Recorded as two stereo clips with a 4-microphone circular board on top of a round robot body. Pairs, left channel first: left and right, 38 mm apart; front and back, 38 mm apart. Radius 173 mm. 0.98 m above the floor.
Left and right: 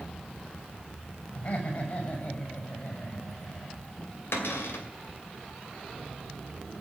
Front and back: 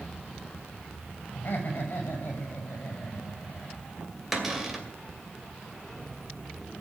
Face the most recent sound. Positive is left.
turn(degrees=95)